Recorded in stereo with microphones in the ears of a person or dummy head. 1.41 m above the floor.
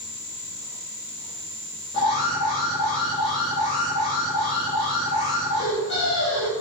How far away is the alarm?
About 8 m.